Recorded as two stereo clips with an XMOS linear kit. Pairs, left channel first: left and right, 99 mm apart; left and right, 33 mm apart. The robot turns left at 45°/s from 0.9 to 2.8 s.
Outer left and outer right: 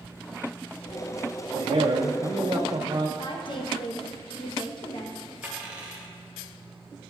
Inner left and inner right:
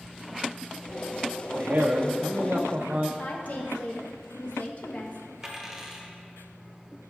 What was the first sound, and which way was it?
A man speaking, 65° right.